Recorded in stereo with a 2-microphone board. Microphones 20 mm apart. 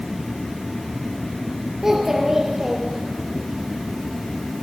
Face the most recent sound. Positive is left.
turn(degrees=-25)  # may be behind; listen again after turning